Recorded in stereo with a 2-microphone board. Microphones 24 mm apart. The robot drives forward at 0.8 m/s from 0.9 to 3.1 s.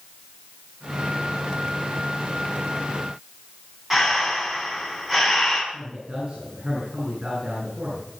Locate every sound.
3.9 s breathing: 5° right (ahead or behind), 5 m
5.7 s a man speaking: 45° right (ahead or behind), 9.5 m